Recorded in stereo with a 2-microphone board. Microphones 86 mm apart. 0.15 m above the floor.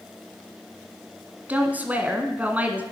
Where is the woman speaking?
20° right (ahead or behind), 1.4 m.